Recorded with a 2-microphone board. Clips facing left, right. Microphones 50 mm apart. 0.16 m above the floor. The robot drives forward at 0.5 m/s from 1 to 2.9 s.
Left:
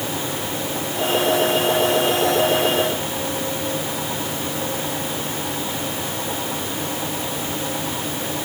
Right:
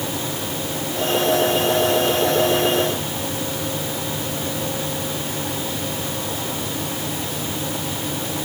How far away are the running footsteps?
No running footsteps in this recording.